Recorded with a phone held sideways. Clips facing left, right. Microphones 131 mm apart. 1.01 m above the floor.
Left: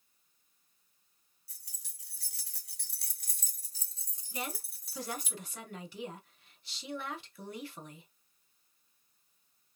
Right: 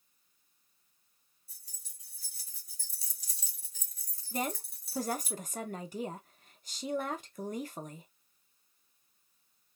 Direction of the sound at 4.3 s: 45° right (ahead or behind).